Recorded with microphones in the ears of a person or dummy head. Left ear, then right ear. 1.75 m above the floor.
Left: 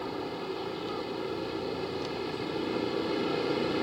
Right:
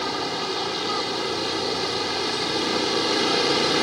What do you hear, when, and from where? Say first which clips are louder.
0.0 s a vehicle: right 9 dB; 50° right (ahead or behind)